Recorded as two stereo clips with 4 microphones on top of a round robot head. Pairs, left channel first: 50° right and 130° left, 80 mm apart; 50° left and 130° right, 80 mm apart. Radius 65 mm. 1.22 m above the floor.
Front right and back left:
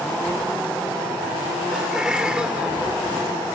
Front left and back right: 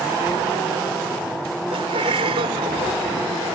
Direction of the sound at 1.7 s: 145° right.